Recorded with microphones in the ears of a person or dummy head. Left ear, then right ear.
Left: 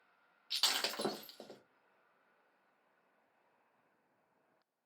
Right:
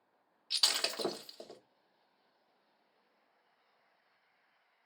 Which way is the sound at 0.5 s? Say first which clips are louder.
Right 3 dB; 10° right (ahead or behind).